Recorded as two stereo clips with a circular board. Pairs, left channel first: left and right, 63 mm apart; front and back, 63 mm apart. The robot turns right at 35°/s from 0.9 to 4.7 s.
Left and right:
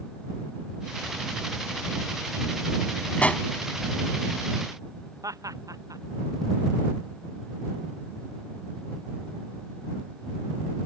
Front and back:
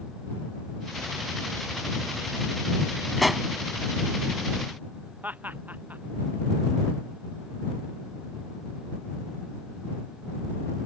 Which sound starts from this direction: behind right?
Laughter, at 5.2 s.